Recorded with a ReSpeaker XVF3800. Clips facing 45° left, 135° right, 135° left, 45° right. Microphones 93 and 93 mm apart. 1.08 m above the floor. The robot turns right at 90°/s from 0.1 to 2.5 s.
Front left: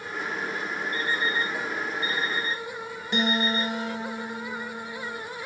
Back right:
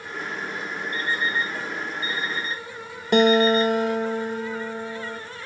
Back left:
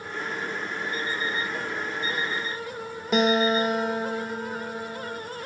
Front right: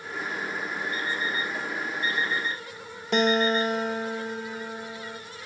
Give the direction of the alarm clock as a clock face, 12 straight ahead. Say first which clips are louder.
Back right 2 dB, back left 1 dB; 6 o'clock.